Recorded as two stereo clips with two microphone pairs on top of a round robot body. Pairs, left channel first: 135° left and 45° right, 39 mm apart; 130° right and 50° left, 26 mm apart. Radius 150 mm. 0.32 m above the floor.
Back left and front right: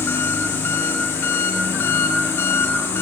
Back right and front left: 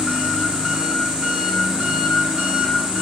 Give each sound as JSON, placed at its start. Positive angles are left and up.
{"t": 0.0, "sound": "an engine running", "azimuth_deg": 105, "distance_m": 9.0}